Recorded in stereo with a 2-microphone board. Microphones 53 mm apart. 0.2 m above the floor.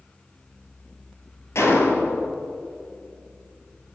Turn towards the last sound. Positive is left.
turn(degrees=65)  # may be behind; listen again after turning